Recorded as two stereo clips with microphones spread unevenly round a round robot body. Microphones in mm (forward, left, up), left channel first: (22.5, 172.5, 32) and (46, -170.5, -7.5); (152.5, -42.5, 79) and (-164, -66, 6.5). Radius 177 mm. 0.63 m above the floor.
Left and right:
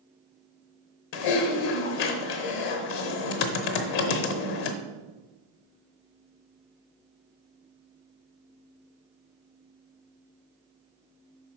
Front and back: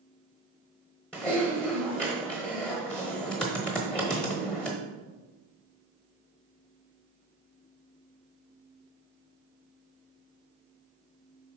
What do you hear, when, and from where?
1.1 s typing on a keyboard: 90° left, 0.8 m